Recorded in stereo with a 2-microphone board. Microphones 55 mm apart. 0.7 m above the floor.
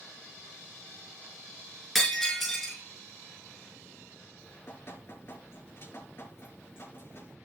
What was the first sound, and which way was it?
Breaking glass, centre (ahead or behind).